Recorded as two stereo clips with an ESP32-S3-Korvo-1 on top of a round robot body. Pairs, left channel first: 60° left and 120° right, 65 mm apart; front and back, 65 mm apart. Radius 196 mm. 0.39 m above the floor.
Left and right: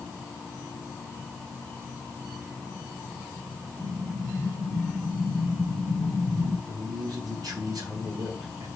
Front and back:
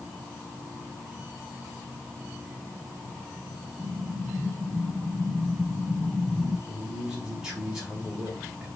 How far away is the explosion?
About 4.5 m.